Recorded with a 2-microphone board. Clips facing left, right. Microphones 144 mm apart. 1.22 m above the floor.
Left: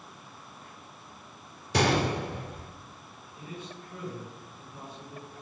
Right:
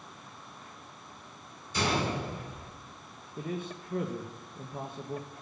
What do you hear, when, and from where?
1.7 s a gunshot: 80° left, 2 m
3.4 s a man speaking: 60° right (ahead or behind), 1.4 m